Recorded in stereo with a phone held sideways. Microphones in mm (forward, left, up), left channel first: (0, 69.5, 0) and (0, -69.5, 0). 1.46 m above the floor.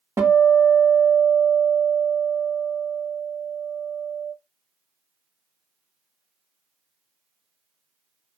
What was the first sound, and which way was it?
A guitar, 20° right (ahead or behind).